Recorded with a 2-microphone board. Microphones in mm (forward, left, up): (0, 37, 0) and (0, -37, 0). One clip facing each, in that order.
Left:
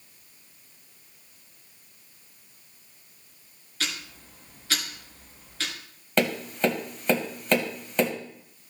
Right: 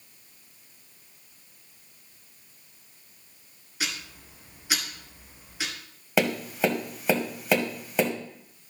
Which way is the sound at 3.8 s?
15° right (ahead or behind).